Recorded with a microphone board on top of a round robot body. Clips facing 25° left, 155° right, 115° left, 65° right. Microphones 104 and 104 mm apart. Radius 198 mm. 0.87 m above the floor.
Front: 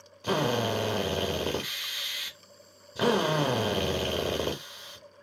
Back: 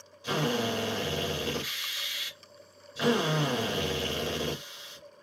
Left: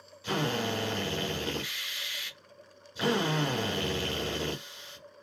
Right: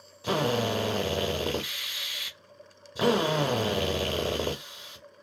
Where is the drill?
20° right, 0.6 m.